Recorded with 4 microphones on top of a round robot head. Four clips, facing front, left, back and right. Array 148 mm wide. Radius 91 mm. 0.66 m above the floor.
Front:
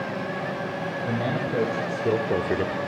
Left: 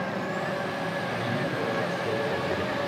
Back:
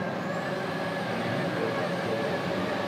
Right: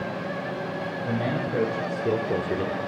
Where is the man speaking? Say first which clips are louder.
Right 2 dB, front 3 dB; 40° right, 3.5 m; by 2.8 s 15° right, 1.1 m.